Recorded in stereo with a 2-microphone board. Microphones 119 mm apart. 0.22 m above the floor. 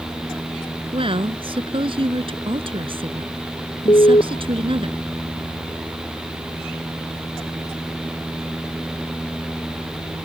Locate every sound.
0.9 s a woman speaking: 50° right (ahead or behind)
3.9 s an alarm: 50° left (ahead or behind)